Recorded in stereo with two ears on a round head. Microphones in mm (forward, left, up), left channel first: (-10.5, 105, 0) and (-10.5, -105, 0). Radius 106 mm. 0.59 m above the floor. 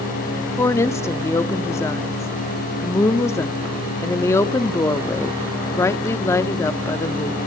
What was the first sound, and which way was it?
A woman speaking, 10° left (ahead or behind).